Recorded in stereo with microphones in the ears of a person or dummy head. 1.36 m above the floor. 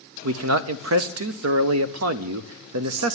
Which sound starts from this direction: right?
A man speaking, at 0.2 s.